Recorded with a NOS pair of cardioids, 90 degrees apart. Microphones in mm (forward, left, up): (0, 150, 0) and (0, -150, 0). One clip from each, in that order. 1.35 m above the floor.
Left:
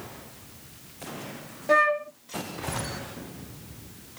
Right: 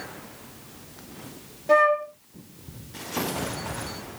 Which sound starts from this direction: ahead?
A flute, at 1.7 s.